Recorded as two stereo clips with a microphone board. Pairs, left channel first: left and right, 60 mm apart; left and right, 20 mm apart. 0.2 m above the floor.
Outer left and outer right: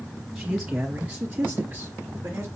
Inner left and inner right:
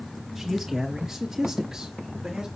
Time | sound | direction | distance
0.3 | a man speaking | 5° right (ahead or behind) | 3.5 m